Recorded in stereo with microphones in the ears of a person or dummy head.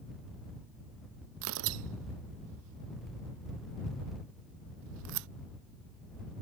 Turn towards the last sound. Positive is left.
turn(degrees=-70)  # may be behind; listen again after turning